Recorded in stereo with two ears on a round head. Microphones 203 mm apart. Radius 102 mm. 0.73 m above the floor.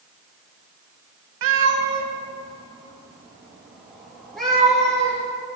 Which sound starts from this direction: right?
A cat meowing, at 1.4 s.